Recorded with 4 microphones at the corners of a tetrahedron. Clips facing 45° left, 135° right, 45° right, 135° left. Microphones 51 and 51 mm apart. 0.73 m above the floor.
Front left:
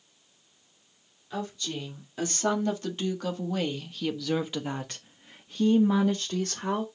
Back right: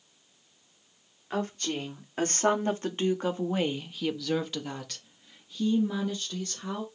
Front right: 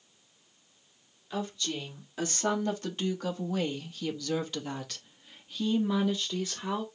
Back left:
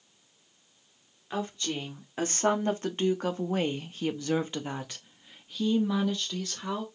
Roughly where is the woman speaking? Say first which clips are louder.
Back right 3 dB, back left 2 dB; behind.